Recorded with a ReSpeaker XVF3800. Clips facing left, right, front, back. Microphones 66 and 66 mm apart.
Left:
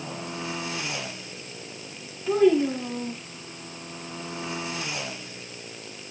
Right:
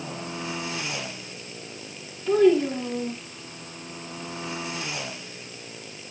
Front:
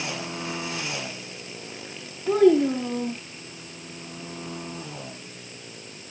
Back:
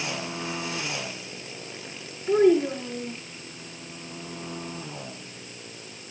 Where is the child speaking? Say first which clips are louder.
Right 1 dB, front 2 dB; 10° left, 5 m.